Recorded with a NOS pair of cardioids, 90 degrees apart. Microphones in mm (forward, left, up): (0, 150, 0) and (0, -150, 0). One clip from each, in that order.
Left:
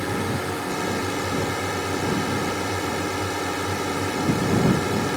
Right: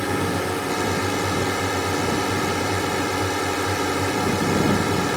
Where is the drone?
25° right.